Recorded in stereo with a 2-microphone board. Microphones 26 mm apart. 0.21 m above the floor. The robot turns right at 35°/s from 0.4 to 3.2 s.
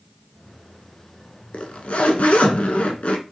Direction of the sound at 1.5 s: 60° left.